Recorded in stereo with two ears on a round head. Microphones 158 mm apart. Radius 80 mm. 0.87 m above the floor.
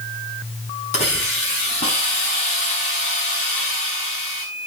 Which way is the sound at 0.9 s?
35° left (ahead or behind).